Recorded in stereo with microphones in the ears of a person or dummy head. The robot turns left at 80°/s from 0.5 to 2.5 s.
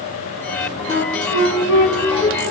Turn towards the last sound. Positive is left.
turn(degrees=0)  # may be behind; listen again after turning